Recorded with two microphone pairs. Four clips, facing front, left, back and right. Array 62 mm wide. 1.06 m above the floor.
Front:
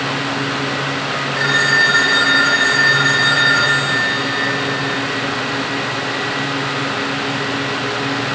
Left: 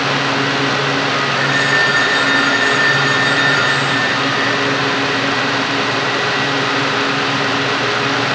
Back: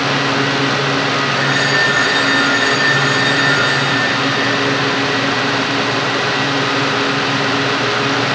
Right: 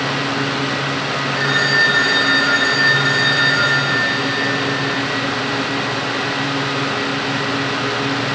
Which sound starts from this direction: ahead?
A phone ringing, at 1.4 s.